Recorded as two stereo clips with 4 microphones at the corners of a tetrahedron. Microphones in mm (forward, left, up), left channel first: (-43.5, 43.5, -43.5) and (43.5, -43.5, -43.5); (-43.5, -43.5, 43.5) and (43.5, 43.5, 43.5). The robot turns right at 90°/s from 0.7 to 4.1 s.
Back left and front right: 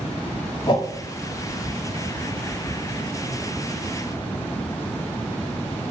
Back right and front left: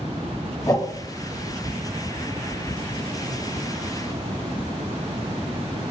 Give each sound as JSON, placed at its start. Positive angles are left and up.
{"t": 0.7, "sound": "a whoosh", "azimuth_deg": 175, "distance_m": 1.1}